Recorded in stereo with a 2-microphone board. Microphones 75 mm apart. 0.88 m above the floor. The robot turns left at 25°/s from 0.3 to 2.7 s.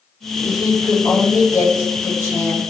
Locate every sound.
0.4 s a woman speaking: 95° left, 1.6 m; by 2.6 s 40° left, 1.6 m